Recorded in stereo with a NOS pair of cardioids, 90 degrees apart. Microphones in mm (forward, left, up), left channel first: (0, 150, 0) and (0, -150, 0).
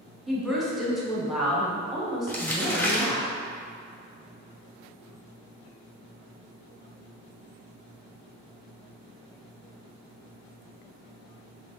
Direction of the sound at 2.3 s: 5° left.